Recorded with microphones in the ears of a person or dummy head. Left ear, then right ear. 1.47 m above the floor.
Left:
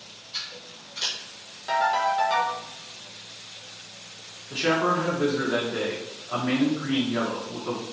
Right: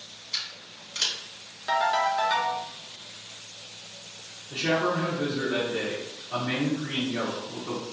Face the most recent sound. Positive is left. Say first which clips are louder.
# left 3 dB
turn(degrees=40)  # may be behind; listen again after turning